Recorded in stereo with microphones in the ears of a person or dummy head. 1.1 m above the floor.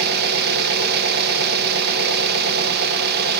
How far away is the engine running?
About 0.8 m.